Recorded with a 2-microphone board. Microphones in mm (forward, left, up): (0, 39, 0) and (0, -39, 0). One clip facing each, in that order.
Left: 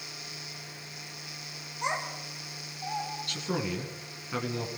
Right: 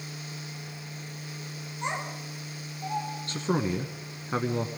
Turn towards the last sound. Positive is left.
turn(degrees=-30)  # may be behind; listen again after turning